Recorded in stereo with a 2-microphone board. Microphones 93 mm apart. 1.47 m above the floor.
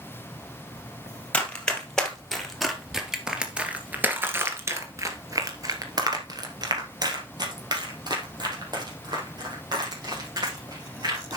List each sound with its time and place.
1.3 s running footsteps: 10° left (ahead or behind), 2.5 m; by 11.4 s 45° right (ahead or behind), 5 m